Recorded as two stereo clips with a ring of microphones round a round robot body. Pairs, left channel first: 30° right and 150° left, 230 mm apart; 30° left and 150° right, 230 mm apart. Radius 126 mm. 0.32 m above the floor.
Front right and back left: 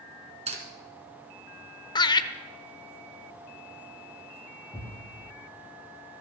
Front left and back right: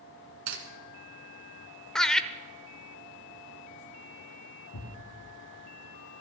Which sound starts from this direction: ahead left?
A thud, at 4.7 s.